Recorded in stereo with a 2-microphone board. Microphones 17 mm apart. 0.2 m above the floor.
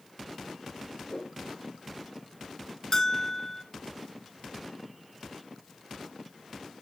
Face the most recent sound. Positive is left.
turn(degrees=30)  # may be behind; listen again after turning